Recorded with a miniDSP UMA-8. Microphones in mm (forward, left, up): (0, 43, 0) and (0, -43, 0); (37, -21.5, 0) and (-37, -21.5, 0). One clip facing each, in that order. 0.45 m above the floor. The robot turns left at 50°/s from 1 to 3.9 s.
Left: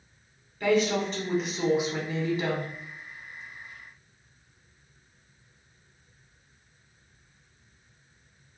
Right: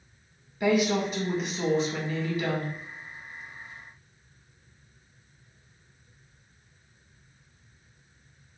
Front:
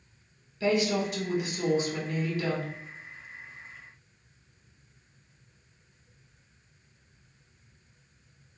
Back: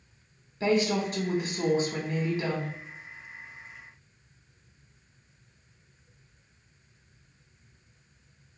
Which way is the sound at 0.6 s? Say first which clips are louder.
Even, back 1 dB; 160° right.